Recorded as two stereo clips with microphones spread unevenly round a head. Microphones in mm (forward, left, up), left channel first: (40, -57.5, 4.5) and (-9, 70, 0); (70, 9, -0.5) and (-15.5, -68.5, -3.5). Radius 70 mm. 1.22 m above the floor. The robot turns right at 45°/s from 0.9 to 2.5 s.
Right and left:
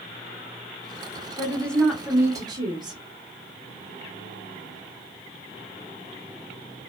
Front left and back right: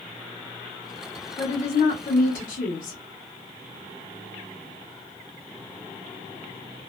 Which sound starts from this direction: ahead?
A woman speaking, at 1.4 s.